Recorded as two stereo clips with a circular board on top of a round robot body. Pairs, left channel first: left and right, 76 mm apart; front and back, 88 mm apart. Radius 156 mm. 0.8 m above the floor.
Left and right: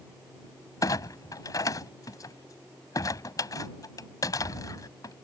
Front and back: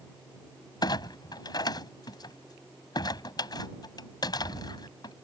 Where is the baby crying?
I don't hear a baby crying.